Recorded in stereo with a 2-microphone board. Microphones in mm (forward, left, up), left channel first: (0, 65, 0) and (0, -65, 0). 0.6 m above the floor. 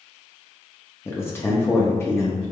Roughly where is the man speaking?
Centre.